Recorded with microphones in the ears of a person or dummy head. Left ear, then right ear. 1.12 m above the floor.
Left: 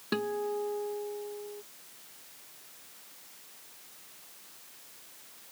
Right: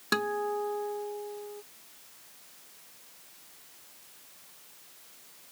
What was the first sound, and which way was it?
A guitar, 55° right (ahead or behind).